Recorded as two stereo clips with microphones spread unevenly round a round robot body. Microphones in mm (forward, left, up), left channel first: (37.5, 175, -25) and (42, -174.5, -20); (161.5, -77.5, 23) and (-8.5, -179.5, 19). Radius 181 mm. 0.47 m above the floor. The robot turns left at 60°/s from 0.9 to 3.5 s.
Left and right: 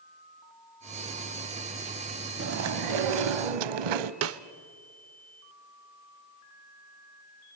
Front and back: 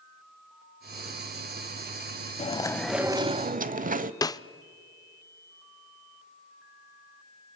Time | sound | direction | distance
2.4 | chewing | 30° right | 0.8 m
4.2 | a snare drum | 40° right | 0.6 m